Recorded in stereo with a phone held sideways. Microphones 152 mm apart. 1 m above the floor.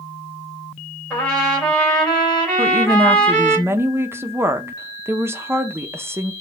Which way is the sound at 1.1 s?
10° left (ahead or behind).